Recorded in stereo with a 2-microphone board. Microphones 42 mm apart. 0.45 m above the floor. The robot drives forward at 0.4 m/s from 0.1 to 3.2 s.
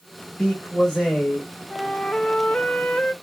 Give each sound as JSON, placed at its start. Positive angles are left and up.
{"t": 0.4, "sound": "a man speaking", "side_deg": 20, "distance_m": 1.6}
{"t": 1.7, "sound": "a flute", "side_deg": 25, "distance_m": 0.7}